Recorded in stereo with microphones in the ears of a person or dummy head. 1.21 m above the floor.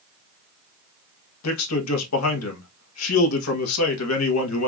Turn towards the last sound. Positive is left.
turn(degrees=80)